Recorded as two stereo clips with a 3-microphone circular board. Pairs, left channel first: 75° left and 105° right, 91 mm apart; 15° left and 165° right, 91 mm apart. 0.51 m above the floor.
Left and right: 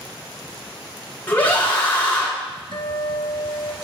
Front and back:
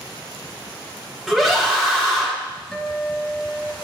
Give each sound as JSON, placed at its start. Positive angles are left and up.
{"t": 1.3, "sound": "a scream", "azimuth_deg": 115, "distance_m": 1.0}
{"t": 2.7, "sound": "a guitar", "azimuth_deg": 100, "distance_m": 0.8}